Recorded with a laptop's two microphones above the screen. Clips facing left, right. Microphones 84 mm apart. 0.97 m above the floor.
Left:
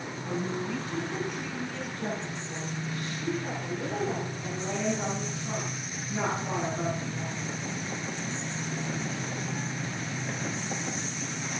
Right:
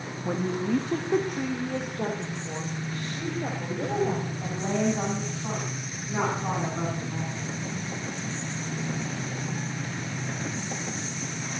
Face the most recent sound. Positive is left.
turn(degrees=-75)  # may be behind; listen again after turning